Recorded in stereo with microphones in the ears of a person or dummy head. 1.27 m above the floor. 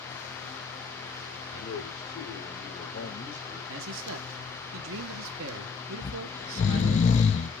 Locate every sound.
1.5 s a man speaking: 60° left (ahead or behind), 3.5 m; by 3.6 s 70° left (ahead or behind), 4.5 m
3.7 s a man speaking: 70° right (ahead or behind), 1.0 m
6.0 s snoring: 30° left (ahead or behind), 0.7 m